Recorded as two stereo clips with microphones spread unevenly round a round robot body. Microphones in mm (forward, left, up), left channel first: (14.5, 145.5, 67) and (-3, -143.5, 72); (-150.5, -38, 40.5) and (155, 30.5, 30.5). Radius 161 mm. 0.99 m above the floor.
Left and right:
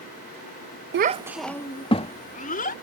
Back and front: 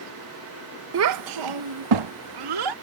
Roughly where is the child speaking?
Ahead right.